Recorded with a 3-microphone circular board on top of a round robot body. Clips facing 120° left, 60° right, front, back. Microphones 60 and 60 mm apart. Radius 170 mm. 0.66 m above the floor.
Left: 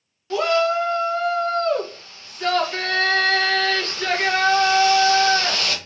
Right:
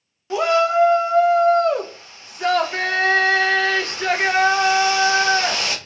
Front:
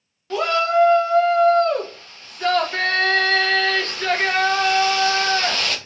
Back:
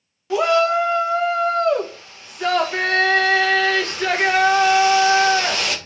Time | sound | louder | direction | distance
0.3 | a shout | right 2 dB, back 2 dB | 110° right | 0.7 m